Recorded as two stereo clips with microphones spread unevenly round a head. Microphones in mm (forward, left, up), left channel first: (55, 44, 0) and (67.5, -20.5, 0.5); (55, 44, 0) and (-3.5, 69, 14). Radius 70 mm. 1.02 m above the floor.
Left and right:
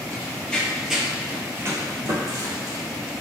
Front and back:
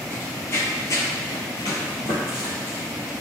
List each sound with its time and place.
0.1 s running footsteps: 40° left, 1.9 m; by 3.1 s 95° right, 3 m